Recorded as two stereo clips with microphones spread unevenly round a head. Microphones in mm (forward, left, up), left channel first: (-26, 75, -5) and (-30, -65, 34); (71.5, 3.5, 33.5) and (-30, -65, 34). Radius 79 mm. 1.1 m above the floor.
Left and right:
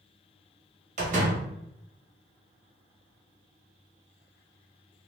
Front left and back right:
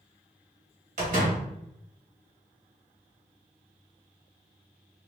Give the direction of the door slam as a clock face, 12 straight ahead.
4 o'clock.